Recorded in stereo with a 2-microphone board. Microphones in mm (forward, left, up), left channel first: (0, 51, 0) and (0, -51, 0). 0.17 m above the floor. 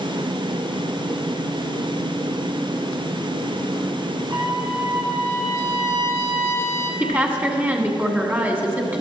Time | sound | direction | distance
4.3 | a trumpet | 35° right (ahead or behind) | 1.9 m
7.0 | a woman speaking | 20° right (ahead or behind) | 1.3 m